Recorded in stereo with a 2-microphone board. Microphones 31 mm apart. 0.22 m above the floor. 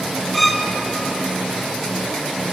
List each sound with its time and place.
0.3 s a violin: 5° left (ahead or behind), 1.3 m